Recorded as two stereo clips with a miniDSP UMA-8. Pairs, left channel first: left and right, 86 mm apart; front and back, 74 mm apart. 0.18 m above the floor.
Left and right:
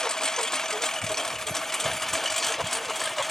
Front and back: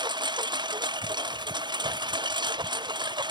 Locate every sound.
0.0 s a lawn mower: 175° left; by 3.3 s straight behind